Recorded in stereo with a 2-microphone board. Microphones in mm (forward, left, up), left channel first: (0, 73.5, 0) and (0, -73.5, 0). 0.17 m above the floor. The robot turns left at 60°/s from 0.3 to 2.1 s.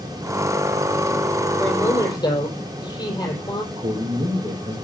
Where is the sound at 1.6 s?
Straight behind, 4.5 m; by 3.6 s 150° left, 4.5 m.